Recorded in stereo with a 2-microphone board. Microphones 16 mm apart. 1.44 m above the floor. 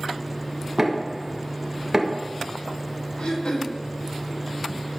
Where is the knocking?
25° right (ahead or behind), 1.4 m.